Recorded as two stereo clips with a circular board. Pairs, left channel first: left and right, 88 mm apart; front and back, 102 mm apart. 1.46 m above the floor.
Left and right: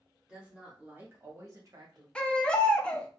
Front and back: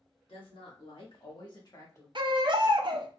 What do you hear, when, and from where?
0.3 s a woman speaking: 10° right, 2.5 m; by 2.0 s 60° right, 1.5 m
2.1 s a baby crying: 165° left, 0.6 m